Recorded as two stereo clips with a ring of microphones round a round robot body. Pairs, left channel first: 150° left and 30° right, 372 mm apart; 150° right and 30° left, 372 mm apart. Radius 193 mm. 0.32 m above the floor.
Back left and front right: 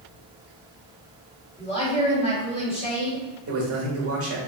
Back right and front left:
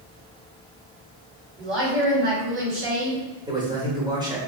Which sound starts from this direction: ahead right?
A man speaking, at 3.5 s.